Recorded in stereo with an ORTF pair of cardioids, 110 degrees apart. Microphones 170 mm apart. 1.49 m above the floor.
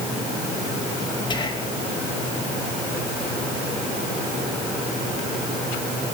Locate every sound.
1.3 s whispering: 30° left, 2.5 m